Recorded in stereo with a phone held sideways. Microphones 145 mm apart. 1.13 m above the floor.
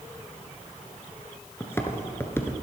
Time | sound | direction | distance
1.6 | footsteps | 15° left (ahead or behind) | 1.1 m